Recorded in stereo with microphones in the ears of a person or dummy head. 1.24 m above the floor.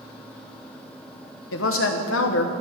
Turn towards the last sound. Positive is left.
turn(degrees=65)  # may be behind; listen again after turning